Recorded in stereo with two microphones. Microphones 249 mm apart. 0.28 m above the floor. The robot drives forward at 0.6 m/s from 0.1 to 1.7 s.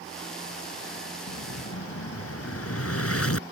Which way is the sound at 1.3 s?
70° left (ahead or behind).